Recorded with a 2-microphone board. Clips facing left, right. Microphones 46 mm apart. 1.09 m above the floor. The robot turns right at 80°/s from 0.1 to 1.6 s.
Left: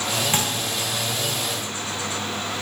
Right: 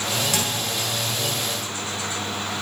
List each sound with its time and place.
0.3 s a thud: 35° left (ahead or behind), 3.5 m; by 0.9 s 10° right (ahead or behind), 3.5 m